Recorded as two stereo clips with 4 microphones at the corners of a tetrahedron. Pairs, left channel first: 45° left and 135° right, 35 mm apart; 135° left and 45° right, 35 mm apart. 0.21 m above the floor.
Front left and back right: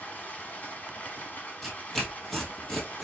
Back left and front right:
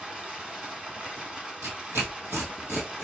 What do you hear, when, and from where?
0.0 s running water: 15° left, 1.2 m
1.6 s tearing paper: 40° right, 1.7 m